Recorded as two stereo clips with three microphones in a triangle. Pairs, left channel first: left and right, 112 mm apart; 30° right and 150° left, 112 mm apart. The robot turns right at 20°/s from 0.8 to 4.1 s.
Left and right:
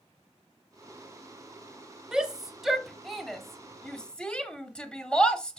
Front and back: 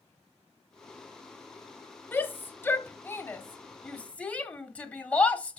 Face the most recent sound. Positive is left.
turn(degrees=20)